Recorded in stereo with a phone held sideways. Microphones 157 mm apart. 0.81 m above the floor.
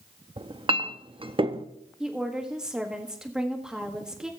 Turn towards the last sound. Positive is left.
turn(degrees=-5)  # may be behind; listen again after turning